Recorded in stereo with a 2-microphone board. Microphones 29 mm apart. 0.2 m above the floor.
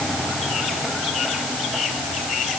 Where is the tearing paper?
No tearing paper in this recording.